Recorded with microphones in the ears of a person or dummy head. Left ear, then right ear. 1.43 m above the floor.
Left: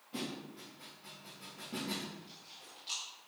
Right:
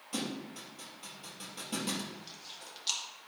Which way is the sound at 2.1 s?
50° right (ahead or behind).